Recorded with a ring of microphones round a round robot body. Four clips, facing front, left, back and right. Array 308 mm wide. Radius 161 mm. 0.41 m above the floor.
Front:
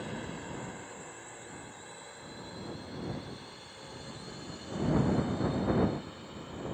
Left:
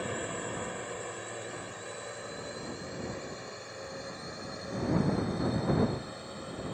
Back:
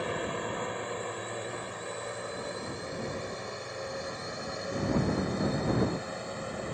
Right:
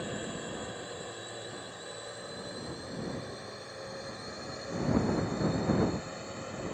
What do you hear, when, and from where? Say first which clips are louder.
0.0 s a drone: left 2 dB, back 7 dB; 160° left; by 6.8 s 170° right